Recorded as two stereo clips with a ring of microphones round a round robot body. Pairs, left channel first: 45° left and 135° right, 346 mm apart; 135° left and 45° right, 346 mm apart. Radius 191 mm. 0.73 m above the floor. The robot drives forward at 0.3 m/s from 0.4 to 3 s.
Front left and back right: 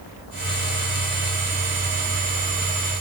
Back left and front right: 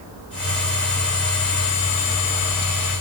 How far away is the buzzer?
I don't hear a buzzer.